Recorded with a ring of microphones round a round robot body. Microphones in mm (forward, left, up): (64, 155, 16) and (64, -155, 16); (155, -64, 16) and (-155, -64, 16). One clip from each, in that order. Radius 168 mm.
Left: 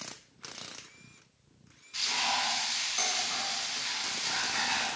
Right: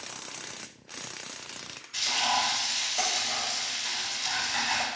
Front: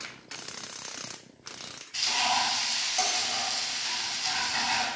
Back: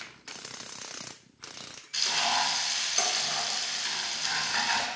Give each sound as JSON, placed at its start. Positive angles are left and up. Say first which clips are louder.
{"t": 1.9, "sound": "frying", "louder": "right 3 dB, even", "azimuth_deg": -175, "distance_m": 1.7}